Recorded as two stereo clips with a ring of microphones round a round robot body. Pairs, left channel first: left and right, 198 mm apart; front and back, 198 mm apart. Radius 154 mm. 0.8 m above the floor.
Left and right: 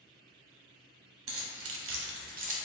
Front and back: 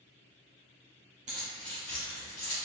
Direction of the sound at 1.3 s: 115° right.